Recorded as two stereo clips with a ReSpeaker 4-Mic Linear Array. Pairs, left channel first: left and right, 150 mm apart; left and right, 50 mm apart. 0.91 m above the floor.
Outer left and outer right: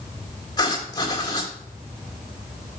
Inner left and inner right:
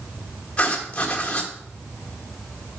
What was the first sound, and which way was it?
Writing, 25° left (ahead or behind).